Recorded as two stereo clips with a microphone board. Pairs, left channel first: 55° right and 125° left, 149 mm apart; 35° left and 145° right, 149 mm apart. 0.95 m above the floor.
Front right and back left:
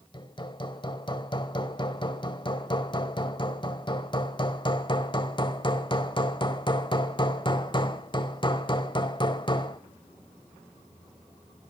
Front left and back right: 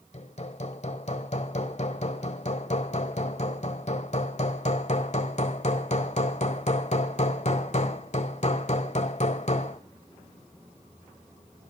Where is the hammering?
Straight ahead, 1.7 m.